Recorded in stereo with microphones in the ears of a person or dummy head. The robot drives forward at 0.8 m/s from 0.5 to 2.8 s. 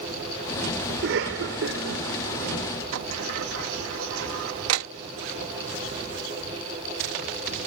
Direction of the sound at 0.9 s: 65° right (ahead or behind).